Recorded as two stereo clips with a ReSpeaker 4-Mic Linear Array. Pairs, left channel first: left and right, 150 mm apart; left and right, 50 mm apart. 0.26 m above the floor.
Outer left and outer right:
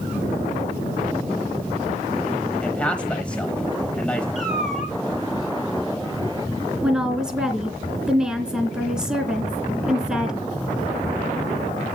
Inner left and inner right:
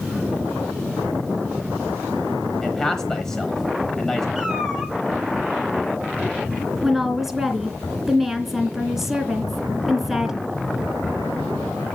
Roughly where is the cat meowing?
Centre.